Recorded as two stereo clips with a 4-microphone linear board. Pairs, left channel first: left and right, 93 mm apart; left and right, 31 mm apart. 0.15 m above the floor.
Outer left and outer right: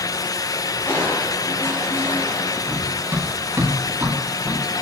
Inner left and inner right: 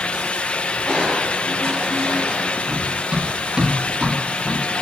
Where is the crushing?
25° left (ahead or behind), 9.5 m.